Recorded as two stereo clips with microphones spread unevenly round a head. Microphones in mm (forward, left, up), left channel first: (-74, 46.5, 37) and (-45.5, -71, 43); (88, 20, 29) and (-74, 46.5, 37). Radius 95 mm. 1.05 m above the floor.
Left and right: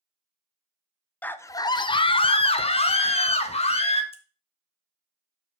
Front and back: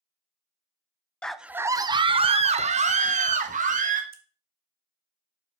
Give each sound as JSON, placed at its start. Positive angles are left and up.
{"t": 1.2, "sound": "a scream", "azimuth_deg": 60, "distance_m": 0.6}
{"t": 4.1, "sound": "scissors", "azimuth_deg": 140, "distance_m": 1.6}